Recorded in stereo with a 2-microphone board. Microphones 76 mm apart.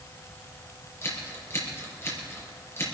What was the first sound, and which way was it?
Scissors, 35° left (ahead or behind).